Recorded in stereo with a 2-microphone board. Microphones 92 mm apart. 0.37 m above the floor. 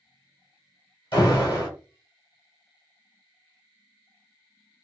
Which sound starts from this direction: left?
An alarm, at 1.1 s.